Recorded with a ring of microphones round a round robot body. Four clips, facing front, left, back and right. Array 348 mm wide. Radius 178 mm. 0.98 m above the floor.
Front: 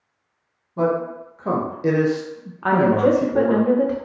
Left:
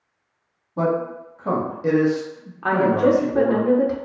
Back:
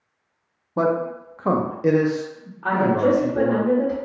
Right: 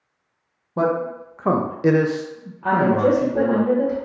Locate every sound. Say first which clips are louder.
0.8 s a man speaking: right 1 dB, even; 145° right, 0.9 m; by 3.6 s 5° right, 1.0 m
2.6 s a woman speaking: even, front 2 dB; 35° left, 0.9 m